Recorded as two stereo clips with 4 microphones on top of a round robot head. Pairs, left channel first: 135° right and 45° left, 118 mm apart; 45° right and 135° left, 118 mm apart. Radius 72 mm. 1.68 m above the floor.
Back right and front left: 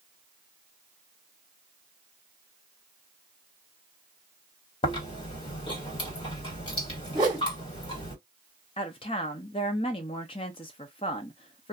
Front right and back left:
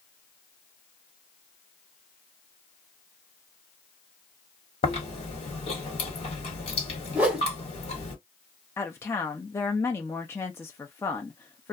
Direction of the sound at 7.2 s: 65° left.